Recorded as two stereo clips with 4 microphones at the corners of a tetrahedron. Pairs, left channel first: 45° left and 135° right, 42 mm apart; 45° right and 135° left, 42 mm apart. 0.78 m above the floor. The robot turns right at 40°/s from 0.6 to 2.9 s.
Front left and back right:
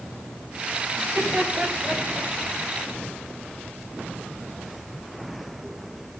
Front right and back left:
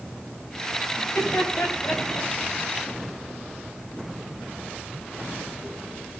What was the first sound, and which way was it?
Laughter, 90° right.